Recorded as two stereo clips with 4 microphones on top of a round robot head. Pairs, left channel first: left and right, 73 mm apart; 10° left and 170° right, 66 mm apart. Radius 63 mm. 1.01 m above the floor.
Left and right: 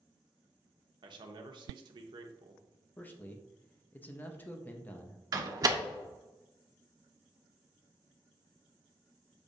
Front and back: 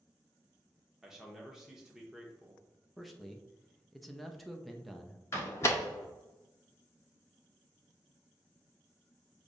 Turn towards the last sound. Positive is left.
turn(degrees=-50)